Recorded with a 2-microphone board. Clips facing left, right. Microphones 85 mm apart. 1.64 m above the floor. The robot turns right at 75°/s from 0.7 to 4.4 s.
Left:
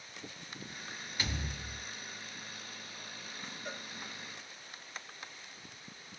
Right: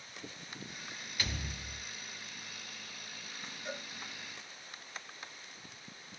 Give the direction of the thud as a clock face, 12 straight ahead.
11 o'clock.